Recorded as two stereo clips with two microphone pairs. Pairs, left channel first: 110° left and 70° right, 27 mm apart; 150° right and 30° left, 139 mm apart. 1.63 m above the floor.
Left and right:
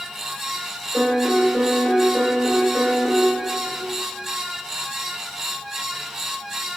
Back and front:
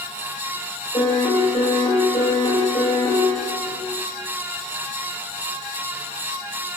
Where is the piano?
175° right, 1.3 m.